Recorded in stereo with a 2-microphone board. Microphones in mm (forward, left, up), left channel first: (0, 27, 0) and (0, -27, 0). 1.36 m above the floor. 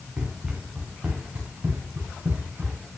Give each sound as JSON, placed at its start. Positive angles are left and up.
{"t": 0.2, "sound": "running footsteps", "side_deg": -10, "distance_m": 5.5}